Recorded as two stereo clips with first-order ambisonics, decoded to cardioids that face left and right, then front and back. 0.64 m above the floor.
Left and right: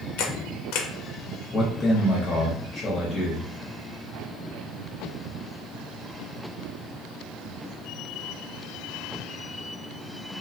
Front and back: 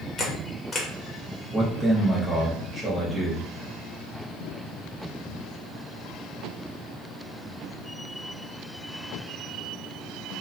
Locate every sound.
0.2 s a camera shutter: 70° left, 0.5 m
1.5 s a man speaking: 110° left, 0.7 m